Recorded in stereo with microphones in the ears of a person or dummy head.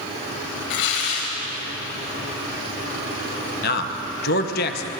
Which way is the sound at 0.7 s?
65° left (ahead or behind).